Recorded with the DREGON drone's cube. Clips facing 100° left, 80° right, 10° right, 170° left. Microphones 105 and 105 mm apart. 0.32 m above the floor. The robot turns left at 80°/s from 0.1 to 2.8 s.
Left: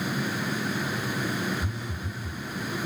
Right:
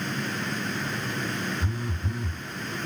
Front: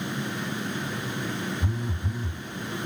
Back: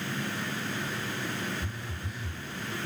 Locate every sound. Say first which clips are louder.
1.6 s a phone buzzing: right 2 dB, front 7 dB; 15° right, 0.5 m; by 2.4 s 80° right, 0.5 m